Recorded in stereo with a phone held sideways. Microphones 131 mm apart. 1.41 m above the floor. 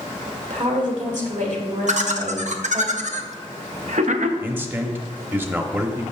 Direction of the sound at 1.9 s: 65° right (ahead or behind).